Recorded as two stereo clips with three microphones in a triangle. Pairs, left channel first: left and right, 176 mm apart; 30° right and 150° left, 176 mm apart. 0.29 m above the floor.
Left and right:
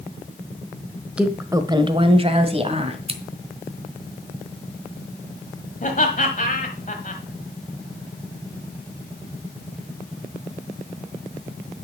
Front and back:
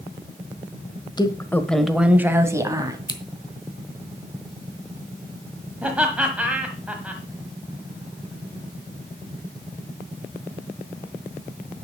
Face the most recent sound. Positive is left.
turn(degrees=70)